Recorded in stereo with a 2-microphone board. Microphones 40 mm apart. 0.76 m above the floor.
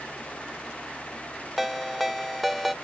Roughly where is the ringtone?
Centre.